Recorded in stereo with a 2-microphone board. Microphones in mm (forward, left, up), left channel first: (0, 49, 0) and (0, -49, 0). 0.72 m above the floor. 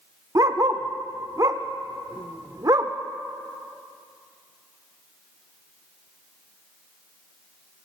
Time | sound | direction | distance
0.3 | a dog barking | 40° right (ahead or behind) | 0.5 m